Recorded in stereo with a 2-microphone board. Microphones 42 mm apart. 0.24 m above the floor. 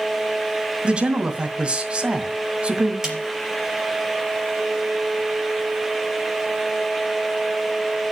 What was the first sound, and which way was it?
A man speaking, 30° right (ahead or behind).